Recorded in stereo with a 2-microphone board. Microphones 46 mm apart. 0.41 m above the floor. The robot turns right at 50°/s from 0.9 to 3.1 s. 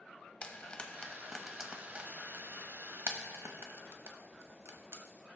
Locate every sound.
0.4 s frying: 25° left (ahead or behind), 1.0 m; by 5.0 s 70° right (ahead or behind), 1.0 m